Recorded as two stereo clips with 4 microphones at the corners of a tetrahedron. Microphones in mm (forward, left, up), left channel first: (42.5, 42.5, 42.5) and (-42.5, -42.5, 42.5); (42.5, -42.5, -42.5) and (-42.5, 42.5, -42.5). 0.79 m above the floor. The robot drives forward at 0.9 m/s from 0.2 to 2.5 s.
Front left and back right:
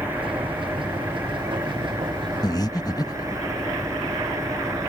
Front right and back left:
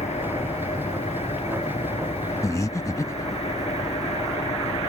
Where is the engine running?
60° right; by 4.9 s 70° right.